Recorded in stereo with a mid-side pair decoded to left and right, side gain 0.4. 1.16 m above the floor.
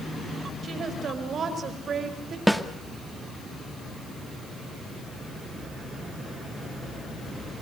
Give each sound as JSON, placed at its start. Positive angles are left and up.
{"t": 0.6, "sound": "a woman speaking", "azimuth_deg": -55, "distance_m": 5.5}
{"t": 2.5, "sound": "a snare drum", "azimuth_deg": -5, "distance_m": 2.0}